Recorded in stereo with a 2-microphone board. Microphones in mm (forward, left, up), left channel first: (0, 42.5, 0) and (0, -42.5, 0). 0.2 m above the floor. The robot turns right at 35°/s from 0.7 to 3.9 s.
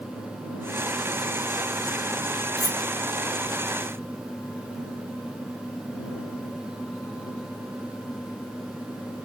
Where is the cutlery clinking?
Centre (ahead or behind); by 2.8 s 10° left (ahead or behind).